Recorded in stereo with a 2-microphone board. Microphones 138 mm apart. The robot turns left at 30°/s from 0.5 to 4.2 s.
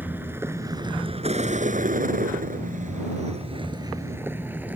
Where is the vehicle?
15° right (ahead or behind).